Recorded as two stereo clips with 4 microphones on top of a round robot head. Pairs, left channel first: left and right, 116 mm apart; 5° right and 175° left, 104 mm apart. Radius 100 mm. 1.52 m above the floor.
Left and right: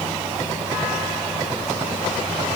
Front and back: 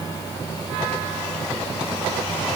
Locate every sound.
Only background noise.